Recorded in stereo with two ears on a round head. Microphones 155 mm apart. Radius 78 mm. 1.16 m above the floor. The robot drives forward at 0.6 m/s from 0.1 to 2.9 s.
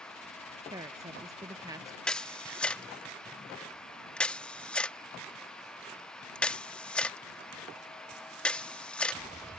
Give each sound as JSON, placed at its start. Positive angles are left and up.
{"t": 0.7, "sound": "a woman speaking", "side_deg": -20}
{"t": 2.1, "sound": "a camera shutter", "side_deg": 5}